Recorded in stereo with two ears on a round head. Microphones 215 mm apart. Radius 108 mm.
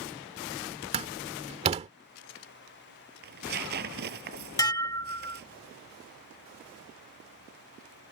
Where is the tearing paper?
45° right (ahead or behind).